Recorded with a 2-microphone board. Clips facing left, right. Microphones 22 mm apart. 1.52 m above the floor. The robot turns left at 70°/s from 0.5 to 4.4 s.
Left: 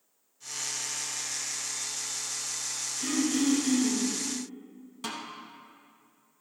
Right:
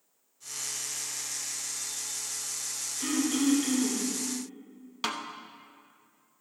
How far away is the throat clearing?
About 4 m.